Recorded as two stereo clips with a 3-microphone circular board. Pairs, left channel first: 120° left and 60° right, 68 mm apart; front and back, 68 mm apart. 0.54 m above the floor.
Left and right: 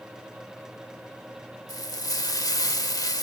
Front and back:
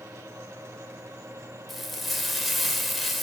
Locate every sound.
1.7 s frying: 90° left, 1.1 m